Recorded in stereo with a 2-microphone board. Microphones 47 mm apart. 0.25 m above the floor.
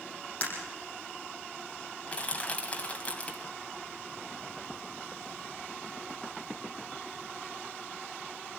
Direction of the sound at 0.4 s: 30° left (ahead or behind).